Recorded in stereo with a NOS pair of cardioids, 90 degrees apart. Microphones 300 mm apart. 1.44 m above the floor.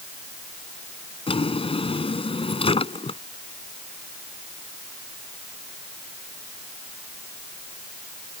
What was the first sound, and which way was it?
A drawer, 20° left.